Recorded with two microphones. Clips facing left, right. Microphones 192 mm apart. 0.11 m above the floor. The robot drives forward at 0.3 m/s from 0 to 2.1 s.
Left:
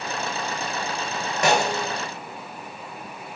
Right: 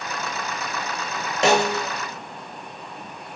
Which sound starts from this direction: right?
A snare drum, at 1.4 s.